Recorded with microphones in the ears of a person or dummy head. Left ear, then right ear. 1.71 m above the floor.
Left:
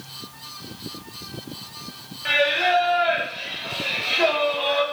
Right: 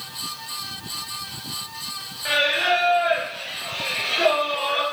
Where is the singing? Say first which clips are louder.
Even; 10° left (ahead or behind), 0.7 m.